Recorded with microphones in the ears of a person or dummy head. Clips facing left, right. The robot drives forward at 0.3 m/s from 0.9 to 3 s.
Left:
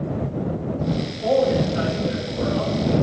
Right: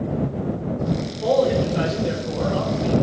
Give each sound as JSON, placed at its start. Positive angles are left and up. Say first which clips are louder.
{"t": 1.2, "sound": "a man speaking", "louder": "even", "side_deg": -65, "distance_m": 5.5}